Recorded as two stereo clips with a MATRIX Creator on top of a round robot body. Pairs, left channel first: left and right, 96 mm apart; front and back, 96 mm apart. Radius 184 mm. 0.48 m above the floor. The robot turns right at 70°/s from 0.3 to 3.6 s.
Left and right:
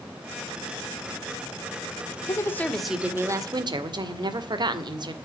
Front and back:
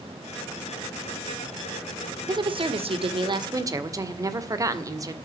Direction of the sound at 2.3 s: 140° left.